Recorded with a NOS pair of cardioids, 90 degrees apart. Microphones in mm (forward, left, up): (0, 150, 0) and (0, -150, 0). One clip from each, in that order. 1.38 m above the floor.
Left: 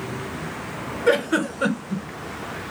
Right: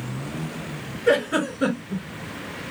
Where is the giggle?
30° left, 1.9 m.